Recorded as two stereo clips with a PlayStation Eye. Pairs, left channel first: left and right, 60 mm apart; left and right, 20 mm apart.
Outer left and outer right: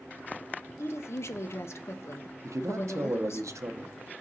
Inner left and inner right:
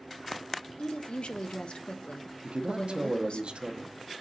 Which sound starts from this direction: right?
A man speaking, at 2.4 s.